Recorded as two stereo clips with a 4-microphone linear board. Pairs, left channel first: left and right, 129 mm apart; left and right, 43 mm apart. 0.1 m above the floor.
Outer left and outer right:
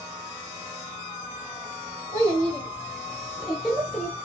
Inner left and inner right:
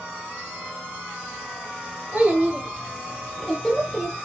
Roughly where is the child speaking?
Right.